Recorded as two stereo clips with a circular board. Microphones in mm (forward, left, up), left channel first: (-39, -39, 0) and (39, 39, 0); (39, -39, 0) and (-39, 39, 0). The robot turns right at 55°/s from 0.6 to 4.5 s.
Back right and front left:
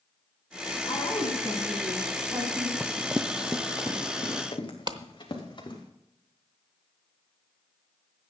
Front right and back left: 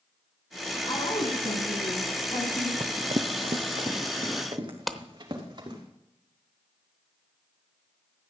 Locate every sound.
0.9 s a woman speaking: 95° right, 4 m; by 2.7 s 5° left, 4 m
2.8 s running footsteps: 130° left, 0.6 m; by 5.9 s straight behind, 5 m
4.9 s a clap: 40° left, 0.8 m